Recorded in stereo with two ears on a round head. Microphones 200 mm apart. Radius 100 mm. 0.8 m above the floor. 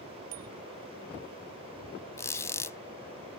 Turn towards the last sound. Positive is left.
turn(degrees=15)  # may be behind; listen again after turning